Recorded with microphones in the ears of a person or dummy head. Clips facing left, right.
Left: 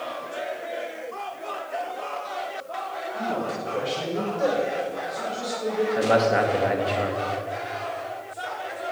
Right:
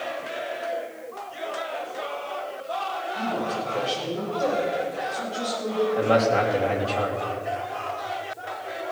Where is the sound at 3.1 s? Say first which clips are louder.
Even; 35° left (ahead or behind), 5.5 m; by 5.8 s 25° left (ahead or behind), 7 m.